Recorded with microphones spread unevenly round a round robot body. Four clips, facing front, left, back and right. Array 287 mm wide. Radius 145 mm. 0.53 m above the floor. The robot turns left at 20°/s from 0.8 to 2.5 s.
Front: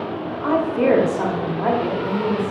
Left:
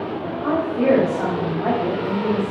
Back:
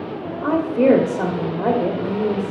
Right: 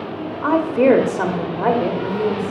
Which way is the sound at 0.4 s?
105° right.